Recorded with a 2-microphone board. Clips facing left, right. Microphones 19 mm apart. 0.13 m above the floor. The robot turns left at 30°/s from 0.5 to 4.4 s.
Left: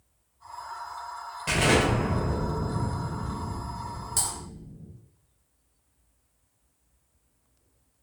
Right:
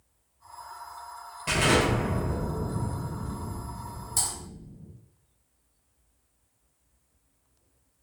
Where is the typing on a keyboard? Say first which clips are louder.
Even; 20° left (ahead or behind), 2.0 m.